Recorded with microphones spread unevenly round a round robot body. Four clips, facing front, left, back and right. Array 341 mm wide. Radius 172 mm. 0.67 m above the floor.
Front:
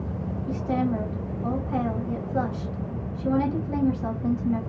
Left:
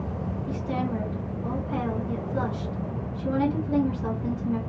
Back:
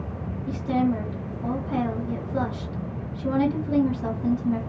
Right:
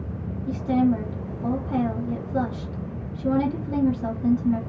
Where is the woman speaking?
135° right, 1.8 m.